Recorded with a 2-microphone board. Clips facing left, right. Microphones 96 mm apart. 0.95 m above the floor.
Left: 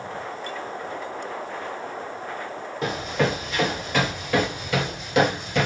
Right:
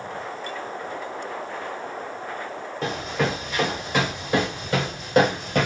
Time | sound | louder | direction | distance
2.8 | running footsteps | left 1 dB | 5° left (ahead or behind) | 1.7 m